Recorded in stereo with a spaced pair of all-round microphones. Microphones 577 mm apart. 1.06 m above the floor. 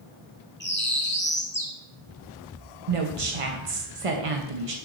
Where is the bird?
20° left (ahead or behind), 1.0 m.